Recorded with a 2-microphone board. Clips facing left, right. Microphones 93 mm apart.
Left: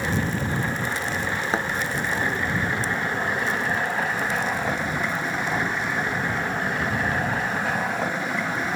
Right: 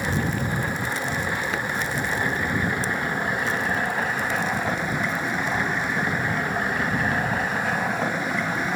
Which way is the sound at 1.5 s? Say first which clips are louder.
Left 3 dB; 30° left (ahead or behind).